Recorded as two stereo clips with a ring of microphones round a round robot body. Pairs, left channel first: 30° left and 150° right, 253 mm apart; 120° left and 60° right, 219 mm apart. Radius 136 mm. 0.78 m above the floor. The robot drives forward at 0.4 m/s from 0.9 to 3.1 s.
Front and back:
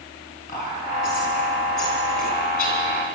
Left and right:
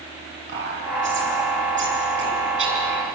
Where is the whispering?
30° right, 9.5 m.